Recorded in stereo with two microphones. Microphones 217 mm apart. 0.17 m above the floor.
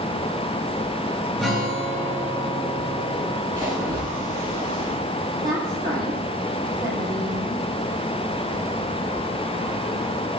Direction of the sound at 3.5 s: 15° right (ahead or behind).